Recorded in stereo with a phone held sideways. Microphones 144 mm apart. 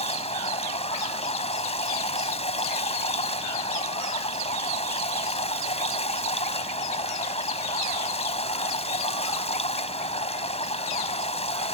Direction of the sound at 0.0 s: 45° left (ahead or behind).